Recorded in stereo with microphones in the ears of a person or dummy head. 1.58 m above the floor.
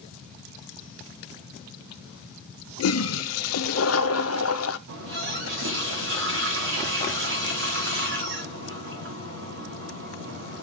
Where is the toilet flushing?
80° left, 0.6 m.